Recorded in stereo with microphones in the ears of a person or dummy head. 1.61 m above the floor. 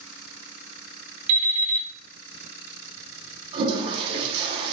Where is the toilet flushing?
30° right (ahead or behind), 0.8 m.